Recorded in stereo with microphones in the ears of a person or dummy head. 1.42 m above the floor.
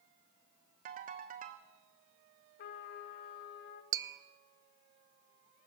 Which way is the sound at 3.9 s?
20° right (ahead or behind).